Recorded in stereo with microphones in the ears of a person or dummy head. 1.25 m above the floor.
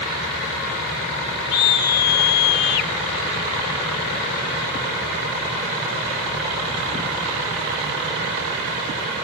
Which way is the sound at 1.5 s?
50° left (ahead or behind).